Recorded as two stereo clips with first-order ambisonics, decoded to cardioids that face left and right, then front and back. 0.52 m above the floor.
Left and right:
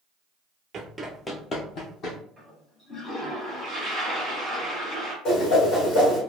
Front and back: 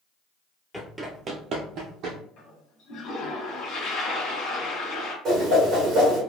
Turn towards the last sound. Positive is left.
turn(degrees=125)